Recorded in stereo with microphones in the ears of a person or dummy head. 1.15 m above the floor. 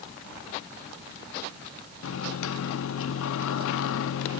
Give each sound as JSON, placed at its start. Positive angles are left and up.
{"t": 2.0, "sound": "a microwave", "side_deg": 85, "distance_m": 0.7}